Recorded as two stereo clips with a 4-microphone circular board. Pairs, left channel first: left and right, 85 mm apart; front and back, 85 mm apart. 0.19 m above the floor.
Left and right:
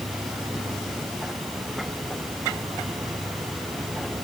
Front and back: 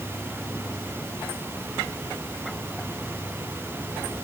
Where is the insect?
80° right.